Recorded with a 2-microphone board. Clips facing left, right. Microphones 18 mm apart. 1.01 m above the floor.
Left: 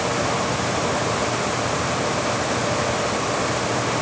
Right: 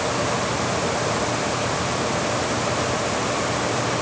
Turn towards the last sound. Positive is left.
No sound to turn to.